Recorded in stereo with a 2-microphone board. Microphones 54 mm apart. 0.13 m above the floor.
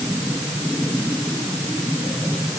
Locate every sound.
Only background noise.